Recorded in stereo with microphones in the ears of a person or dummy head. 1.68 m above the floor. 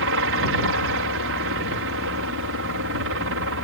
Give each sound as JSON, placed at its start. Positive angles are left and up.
{"t": 0.0, "sound": "a helicopter", "side_deg": -70}